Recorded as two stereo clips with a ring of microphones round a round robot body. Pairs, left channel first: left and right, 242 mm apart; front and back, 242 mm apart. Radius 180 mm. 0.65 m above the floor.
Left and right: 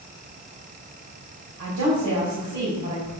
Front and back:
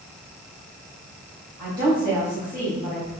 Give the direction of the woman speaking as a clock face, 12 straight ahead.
3 o'clock.